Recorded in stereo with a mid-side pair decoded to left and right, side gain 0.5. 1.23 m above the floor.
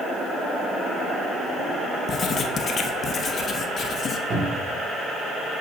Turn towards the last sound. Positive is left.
turn(degrees=-60)